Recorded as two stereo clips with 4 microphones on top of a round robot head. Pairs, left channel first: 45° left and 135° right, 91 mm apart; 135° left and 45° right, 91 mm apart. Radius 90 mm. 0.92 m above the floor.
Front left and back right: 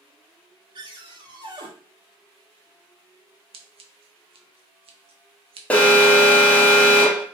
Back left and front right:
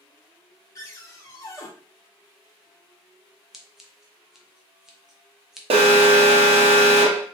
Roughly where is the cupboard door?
Behind.